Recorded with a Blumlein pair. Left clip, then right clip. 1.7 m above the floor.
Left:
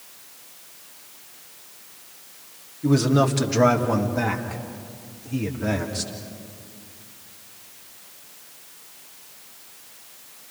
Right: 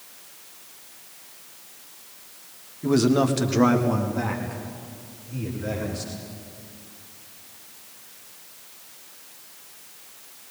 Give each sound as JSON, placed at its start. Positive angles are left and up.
{"t": 2.8, "sound": "a man speaking", "azimuth_deg": -10, "distance_m": 2.0}